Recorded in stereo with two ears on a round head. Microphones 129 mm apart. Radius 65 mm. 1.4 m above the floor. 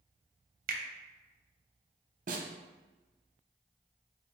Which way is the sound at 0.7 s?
65° right (ahead or behind).